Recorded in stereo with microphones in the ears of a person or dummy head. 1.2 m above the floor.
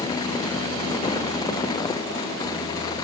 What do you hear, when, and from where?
Only background noise.